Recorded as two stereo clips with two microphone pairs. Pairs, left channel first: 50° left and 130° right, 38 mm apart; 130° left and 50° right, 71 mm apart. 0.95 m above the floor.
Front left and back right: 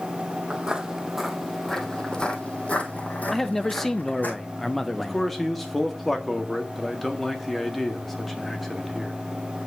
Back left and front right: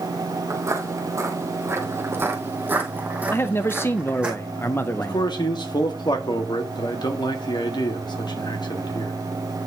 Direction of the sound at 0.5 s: 75° right.